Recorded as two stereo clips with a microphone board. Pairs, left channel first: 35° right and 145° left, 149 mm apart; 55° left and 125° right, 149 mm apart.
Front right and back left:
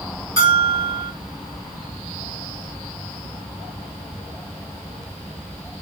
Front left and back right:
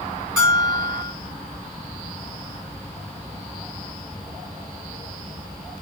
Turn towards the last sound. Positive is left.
turn(degrees=155)